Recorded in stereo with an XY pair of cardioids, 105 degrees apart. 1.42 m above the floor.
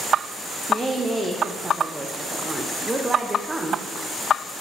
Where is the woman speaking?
20° right, 0.6 m.